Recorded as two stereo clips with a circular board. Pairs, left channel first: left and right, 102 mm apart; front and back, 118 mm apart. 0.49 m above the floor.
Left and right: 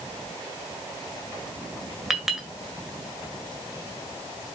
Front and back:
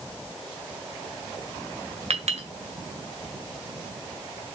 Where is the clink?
175° right, 1.6 m.